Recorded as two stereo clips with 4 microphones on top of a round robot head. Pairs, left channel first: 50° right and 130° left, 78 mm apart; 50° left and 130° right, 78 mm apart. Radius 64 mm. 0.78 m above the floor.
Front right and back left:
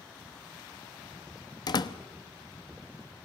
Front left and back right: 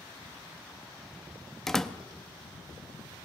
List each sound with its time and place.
1.7 s a door slam: 35° right, 1.0 m